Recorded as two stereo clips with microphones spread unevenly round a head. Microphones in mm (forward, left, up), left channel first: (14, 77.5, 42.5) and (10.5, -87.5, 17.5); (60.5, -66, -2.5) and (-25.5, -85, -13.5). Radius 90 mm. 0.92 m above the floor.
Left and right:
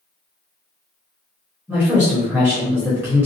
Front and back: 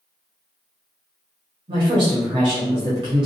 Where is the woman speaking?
170° right, 1.0 m.